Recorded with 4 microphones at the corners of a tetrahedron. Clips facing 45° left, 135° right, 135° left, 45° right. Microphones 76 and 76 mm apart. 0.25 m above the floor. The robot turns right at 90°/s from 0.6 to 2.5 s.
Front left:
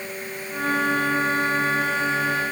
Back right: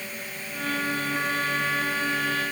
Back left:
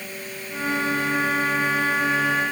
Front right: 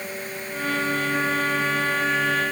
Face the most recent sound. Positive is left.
No sound to turn to.